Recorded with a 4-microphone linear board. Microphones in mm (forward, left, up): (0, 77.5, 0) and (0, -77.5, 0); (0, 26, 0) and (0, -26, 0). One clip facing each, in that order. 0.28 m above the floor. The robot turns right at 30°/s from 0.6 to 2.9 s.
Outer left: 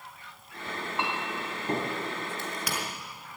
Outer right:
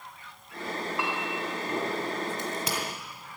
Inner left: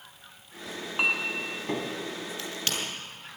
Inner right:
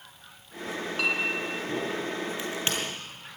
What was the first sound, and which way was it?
A clink, 20° left (ahead or behind).